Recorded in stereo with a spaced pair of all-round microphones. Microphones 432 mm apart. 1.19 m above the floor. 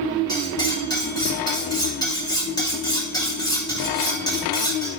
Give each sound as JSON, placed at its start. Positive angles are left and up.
{"t": 0.3, "sound": "cutlery clinking", "side_deg": 10, "distance_m": 2.5}